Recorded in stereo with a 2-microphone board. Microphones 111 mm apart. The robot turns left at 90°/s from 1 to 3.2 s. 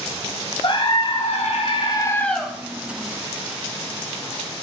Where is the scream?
125° left, 2.5 m; by 2.5 s 5° right, 2.5 m.